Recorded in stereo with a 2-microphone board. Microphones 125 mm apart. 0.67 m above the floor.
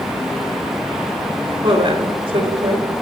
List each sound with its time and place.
1.6 s a woman speaking: 45° right (ahead or behind), 3 m; by 2.9 s 50° right (ahead or behind), 3.5 m